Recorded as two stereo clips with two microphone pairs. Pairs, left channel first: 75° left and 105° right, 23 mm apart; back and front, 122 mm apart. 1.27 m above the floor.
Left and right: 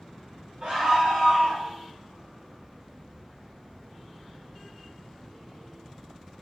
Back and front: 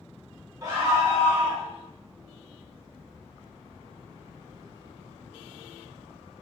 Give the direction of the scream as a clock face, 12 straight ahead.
2 o'clock.